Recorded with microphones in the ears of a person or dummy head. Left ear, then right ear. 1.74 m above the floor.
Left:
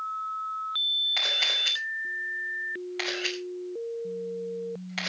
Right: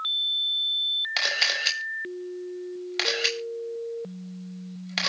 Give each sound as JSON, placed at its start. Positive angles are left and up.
{"t": 1.2, "sound": "a camera shutter", "side_deg": -30, "distance_m": 6.0}